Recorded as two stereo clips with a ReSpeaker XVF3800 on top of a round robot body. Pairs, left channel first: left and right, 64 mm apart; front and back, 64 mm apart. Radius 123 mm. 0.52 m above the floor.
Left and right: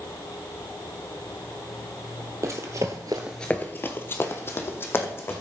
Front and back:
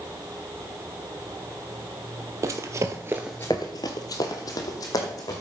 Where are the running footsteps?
140° right, 1.1 m; by 5.4 s 40° left, 2.5 m.